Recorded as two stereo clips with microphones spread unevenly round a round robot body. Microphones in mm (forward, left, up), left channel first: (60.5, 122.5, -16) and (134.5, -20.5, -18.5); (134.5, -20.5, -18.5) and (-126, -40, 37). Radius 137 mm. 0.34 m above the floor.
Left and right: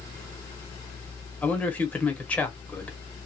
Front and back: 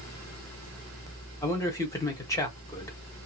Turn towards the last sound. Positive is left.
turn(degrees=45)